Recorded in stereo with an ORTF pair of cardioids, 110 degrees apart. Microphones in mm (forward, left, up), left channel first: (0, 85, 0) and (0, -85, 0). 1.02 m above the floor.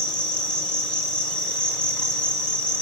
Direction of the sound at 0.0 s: 5° left.